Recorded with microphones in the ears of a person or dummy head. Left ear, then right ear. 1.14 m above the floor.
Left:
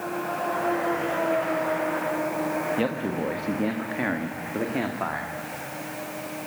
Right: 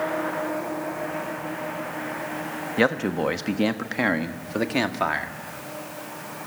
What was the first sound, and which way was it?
A man speaking, 60° right (ahead or behind).